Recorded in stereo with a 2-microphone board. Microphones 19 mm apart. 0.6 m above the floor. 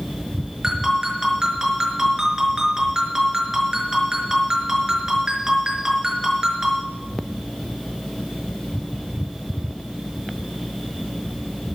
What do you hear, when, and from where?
0.6 s a ringtone: 30° right (ahead or behind), 5 m